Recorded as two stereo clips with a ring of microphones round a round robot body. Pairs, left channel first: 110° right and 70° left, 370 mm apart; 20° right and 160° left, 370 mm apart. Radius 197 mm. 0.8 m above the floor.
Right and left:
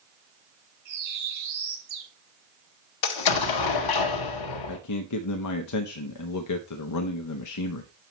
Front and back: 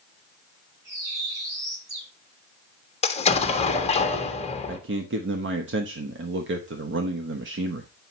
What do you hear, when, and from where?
0.8 s a bird: 115° left, 6 m
3.0 s an explosion: 95° right, 1.1 m
4.7 s a man speaking: 145° right, 0.9 m